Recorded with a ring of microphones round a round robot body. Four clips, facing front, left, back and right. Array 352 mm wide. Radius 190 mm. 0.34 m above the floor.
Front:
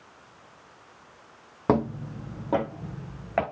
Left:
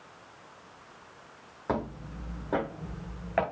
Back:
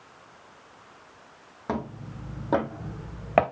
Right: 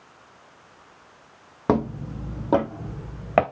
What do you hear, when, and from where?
1.7 s footsteps: 55° right, 1.1 m; by 3.4 s 125° right, 1.9 m